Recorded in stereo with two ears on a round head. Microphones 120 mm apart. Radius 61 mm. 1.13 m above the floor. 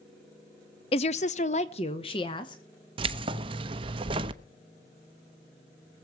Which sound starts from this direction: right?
Keys jangling, at 3.0 s.